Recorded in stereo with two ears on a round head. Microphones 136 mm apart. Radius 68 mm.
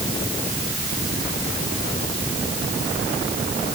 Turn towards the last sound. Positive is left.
No sound to turn to.